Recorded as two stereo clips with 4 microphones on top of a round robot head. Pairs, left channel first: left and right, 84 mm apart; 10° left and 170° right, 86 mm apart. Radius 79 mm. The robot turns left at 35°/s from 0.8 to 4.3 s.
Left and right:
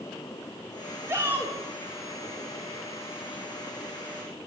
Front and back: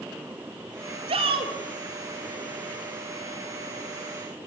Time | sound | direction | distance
1.1 | a shout | 155° right | 3.5 m